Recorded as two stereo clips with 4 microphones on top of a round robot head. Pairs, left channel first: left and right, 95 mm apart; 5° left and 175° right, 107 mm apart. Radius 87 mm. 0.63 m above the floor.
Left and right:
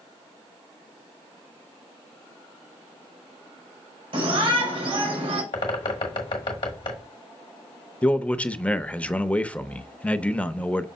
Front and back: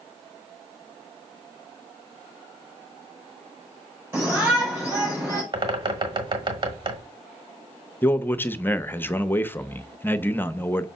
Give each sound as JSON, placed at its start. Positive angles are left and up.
{"t": 4.1, "sound": "a shout", "azimuth_deg": -105, "distance_m": 3.5}
{"t": 5.5, "sound": "a bird", "azimuth_deg": 140, "distance_m": 1.3}
{"t": 8.0, "sound": "a man speaking", "azimuth_deg": 35, "distance_m": 0.7}